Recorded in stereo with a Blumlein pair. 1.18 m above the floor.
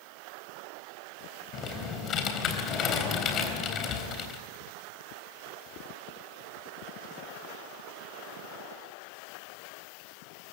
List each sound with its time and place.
1.5 s typing on a keyboard: 30° left, 3.5 m